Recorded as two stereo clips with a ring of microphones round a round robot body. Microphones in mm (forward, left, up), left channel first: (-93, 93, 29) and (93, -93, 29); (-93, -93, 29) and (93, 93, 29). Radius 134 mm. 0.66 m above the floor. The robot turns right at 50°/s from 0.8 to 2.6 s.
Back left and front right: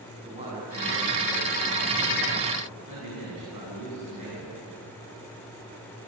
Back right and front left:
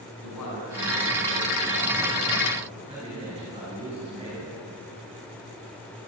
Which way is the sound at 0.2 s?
115° right.